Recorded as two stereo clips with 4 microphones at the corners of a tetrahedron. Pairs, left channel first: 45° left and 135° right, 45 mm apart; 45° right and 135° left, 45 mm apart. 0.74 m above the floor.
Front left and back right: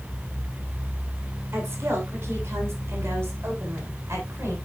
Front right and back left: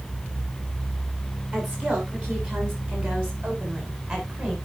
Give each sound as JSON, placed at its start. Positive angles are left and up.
{"t": 1.5, "sound": "a woman speaking", "azimuth_deg": -170, "distance_m": 8.5}